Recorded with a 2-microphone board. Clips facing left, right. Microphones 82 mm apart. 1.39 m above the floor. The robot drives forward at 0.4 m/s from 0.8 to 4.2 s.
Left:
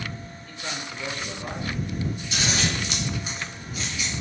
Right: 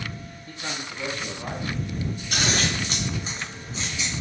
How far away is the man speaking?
About 1.2 m.